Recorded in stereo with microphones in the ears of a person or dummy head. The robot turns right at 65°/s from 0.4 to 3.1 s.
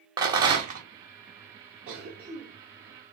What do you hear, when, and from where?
0.2 s a rattle: 15° right (ahead or behind), 0.8 m; by 0.8 s 45° right (ahead or behind), 0.8 m
1.9 s a cough: 50° right (ahead or behind), 0.7 m; by 3.1 s 25° left (ahead or behind), 0.7 m